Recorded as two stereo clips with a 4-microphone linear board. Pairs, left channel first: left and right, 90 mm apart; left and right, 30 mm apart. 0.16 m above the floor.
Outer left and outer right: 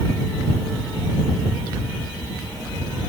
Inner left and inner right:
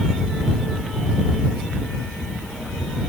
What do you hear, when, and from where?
Only background noise.